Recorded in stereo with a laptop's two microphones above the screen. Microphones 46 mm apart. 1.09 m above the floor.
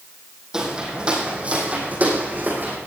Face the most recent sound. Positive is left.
turn(degrees=-40)  # may be behind; listen again after turning